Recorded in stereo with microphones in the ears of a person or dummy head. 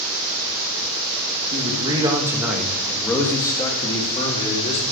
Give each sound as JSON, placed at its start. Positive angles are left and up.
{"t": 1.5, "sound": "a man speaking", "side_deg": -35, "distance_m": 2.5}